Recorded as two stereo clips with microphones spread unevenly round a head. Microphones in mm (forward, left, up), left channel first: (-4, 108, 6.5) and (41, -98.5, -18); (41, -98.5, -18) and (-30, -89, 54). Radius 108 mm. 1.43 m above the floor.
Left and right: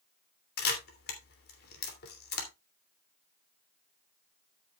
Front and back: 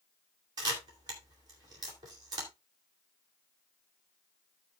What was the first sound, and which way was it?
A camera shutter, 145° left.